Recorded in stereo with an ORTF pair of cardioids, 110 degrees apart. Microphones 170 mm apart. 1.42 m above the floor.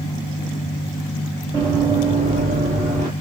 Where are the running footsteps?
40° right, 5 m.